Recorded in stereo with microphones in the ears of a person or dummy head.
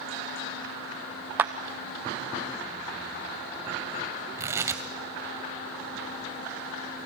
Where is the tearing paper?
25° right (ahead or behind), 1.9 m.